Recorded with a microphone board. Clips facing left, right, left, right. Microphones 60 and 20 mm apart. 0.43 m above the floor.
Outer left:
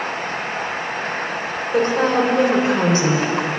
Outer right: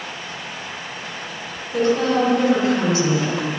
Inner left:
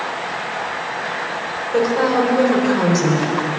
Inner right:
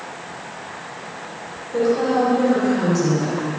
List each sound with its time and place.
1.7 s a woman speaking: 35° left (ahead or behind), 3.5 m